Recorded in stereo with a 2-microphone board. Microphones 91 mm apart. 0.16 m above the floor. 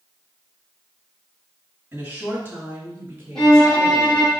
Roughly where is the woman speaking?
Centre.